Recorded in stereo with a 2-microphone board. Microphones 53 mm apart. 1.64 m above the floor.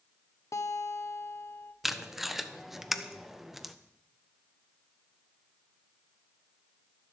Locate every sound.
0.5 s a guitar: 70° left (ahead or behind), 1.3 m
1.8 s tape being pulled: 5° right (ahead or behind), 0.9 m